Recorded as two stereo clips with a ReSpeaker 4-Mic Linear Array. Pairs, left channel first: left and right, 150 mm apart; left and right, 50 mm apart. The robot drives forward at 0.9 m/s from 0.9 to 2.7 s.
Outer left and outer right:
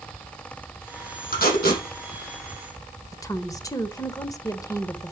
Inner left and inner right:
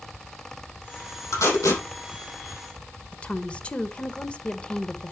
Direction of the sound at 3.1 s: 25° left (ahead or behind).